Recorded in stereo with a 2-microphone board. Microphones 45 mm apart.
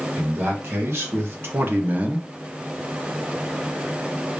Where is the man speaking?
60° right (ahead or behind), 1.9 m; by 2.3 s 15° right (ahead or behind), 0.6 m.